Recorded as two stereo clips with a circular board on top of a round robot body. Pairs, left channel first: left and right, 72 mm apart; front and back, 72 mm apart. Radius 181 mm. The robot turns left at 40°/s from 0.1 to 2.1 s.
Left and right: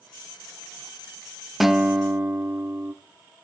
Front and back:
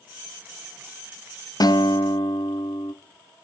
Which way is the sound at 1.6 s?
Straight ahead.